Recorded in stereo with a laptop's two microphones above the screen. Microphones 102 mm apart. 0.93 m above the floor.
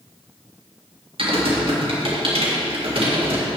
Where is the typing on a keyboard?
60° right (ahead or behind), 1.9 m.